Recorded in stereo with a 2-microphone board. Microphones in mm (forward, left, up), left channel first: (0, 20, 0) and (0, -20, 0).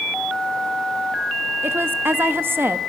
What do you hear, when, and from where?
1.6 s a woman speaking: 60° right (ahead or behind), 0.8 m